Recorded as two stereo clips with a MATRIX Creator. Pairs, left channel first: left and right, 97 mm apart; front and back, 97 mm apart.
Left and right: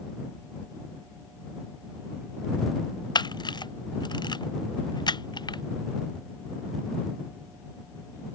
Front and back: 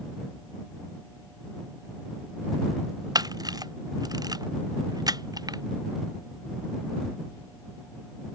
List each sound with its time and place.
3.1 s a camera shutter: 130° left